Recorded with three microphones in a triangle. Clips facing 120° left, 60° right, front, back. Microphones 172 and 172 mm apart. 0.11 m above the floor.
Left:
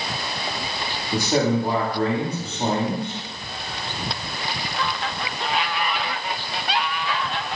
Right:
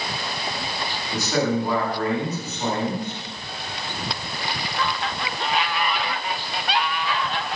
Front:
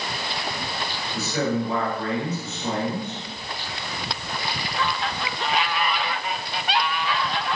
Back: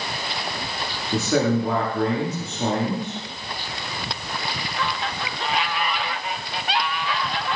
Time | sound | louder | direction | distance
1.1 | a man speaking | left 2 dB, back 5 dB | straight behind | 9 m